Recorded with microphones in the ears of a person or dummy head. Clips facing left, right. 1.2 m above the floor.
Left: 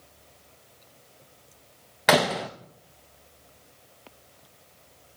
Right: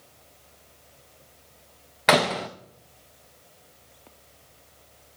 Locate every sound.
2.1 s a door slam: centre (ahead or behind), 0.6 m